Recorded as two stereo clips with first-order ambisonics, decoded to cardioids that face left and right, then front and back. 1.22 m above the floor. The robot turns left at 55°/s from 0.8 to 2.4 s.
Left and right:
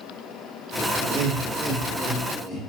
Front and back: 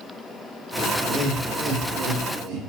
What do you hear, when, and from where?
1.0 s laughter: 115° right, 0.7 m; by 2.7 s 165° left, 0.7 m